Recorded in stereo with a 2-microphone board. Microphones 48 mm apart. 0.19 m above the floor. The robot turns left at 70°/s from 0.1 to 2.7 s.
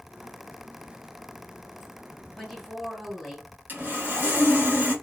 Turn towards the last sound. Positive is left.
turn(degrees=-45)  # may be behind; listen again after turning